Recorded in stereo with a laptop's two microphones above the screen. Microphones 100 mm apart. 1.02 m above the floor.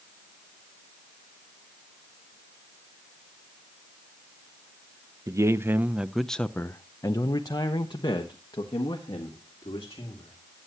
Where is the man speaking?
35° right (ahead or behind), 0.8 m; by 10.4 s 55° left (ahead or behind), 2 m.